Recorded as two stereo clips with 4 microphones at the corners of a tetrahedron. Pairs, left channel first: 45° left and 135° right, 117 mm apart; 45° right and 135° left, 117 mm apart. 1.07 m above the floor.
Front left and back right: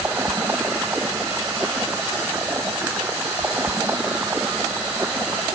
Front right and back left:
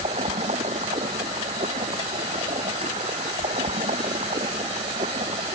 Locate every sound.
0.0 s running water: 150° left